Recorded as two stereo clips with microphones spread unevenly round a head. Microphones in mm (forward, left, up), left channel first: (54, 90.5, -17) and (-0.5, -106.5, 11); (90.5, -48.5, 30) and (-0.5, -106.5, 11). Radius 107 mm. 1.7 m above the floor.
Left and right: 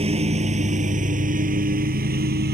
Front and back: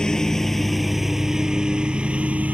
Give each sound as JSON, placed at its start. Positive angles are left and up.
{"t": 0.0, "sound": "a lawn mower", "azimuth_deg": -50}